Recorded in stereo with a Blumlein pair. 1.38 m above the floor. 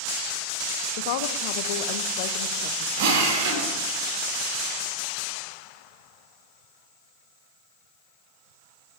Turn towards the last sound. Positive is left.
turn(degrees=-45)